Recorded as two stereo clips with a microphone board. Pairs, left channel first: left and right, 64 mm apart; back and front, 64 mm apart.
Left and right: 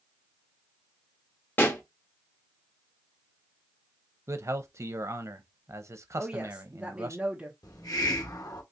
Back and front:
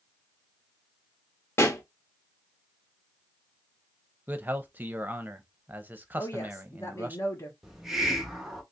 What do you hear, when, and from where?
1.6 s a pop: 140° left, 0.9 m
4.3 s a man speaking: 60° right, 0.7 m
6.2 s a woman speaking: 160° right, 1.3 m
7.6 s a hiss: 85° left, 0.9 m